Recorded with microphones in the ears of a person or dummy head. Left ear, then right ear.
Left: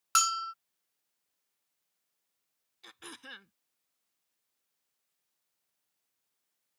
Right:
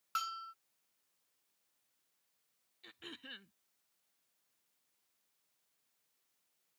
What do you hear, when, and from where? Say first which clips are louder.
0.1 s a bell: left 12 dB; 50° left (ahead or behind)
2.8 s throat clearing: left 3 dB; 45° left (ahead or behind)